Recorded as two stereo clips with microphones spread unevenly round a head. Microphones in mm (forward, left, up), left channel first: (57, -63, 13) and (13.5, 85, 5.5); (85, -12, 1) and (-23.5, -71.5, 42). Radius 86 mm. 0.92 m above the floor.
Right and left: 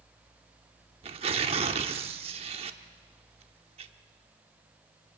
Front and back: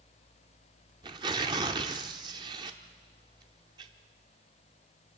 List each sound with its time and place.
1.0 s tearing paper: 160° left, 0.7 m